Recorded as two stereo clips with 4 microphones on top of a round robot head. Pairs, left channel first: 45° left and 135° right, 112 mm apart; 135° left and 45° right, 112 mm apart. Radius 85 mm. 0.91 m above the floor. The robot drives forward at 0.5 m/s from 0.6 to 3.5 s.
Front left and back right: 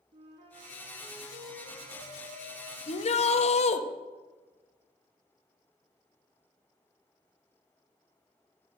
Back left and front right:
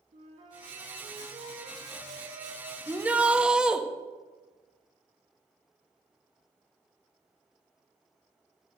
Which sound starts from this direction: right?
A flute, at 0.1 s.